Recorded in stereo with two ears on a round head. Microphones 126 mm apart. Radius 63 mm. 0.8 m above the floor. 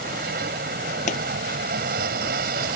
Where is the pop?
55° left (ahead or behind).